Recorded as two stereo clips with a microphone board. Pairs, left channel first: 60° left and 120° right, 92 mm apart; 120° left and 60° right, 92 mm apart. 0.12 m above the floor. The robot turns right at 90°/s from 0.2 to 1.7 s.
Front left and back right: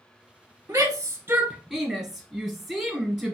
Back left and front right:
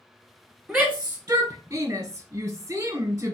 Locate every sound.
0.7 s a shout: 145° right, 1.5 m; by 3.4 s 55° right, 1.5 m